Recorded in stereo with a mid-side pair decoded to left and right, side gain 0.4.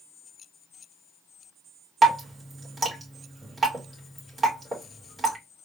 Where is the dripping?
35° right, 3 m.